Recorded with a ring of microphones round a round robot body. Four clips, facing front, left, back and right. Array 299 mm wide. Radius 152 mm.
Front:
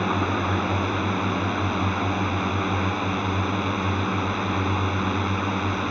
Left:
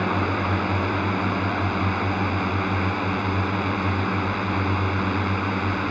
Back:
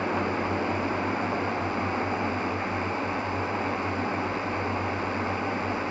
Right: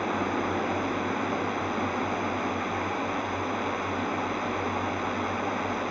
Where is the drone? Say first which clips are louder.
Left 4 dB, front 3 dB; 50° left.